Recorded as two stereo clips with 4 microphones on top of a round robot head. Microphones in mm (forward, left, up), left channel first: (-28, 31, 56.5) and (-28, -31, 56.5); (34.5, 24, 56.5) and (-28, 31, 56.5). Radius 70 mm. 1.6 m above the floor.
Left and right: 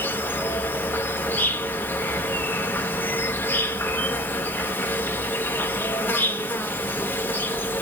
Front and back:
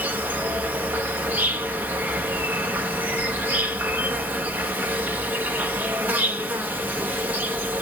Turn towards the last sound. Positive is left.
turn(degrees=130)